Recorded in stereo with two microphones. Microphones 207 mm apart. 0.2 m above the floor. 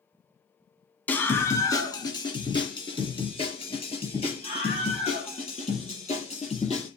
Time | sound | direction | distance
1.1 | a scream | 10° left (ahead or behind) | 1.6 m